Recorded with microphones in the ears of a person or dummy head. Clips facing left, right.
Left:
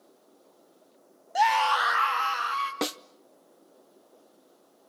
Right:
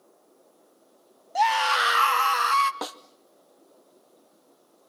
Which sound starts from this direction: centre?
A scream, at 1.4 s.